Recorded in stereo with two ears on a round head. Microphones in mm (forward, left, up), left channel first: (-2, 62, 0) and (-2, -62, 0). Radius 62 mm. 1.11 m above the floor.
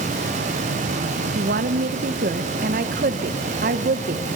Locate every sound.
1.4 s a woman speaking: 70° right (ahead or behind), 0.8 m